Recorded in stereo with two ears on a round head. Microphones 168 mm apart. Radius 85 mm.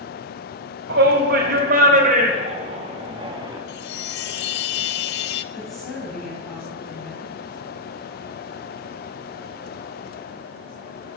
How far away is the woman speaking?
About 4.5 m.